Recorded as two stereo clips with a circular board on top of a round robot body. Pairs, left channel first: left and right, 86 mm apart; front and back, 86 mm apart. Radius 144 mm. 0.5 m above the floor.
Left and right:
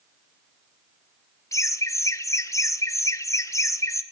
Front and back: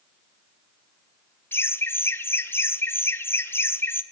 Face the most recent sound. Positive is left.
turn(degrees=55)